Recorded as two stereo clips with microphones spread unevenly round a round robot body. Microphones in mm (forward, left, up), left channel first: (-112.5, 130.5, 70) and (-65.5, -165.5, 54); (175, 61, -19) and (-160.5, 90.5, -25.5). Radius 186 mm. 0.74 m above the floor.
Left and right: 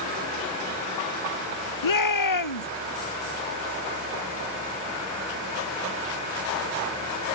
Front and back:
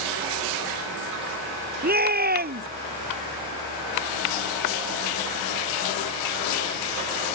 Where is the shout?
110° left.